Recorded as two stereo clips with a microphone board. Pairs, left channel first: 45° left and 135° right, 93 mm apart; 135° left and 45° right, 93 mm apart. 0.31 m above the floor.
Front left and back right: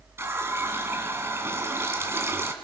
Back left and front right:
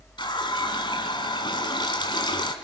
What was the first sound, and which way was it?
A running tap, 165° left.